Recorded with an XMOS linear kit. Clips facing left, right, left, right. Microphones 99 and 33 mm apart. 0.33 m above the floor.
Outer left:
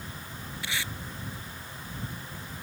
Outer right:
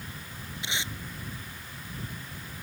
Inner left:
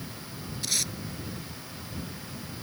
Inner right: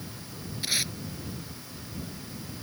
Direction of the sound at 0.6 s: 20° right (ahead or behind).